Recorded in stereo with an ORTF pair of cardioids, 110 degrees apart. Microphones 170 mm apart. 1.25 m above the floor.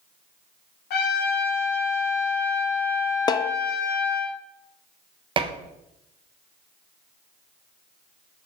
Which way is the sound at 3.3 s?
25° left.